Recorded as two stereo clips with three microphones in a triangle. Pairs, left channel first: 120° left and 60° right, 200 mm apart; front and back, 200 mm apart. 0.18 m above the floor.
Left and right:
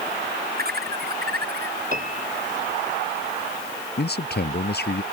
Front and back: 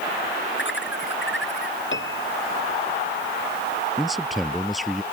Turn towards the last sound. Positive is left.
turn(degrees=90)